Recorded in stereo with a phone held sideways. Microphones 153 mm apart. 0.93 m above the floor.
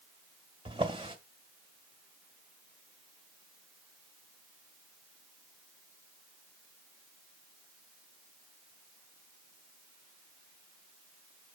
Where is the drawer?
35° right (ahead or behind), 1.8 m.